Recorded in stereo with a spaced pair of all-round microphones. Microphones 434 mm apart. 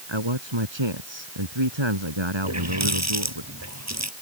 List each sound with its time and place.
0.1 s a man speaking: 75° right (ahead or behind)
2.4 s a running tap: 35° right (ahead or behind)